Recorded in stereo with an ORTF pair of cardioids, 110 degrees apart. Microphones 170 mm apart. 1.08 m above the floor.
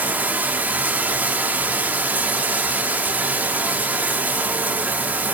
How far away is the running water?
About 1.2 m.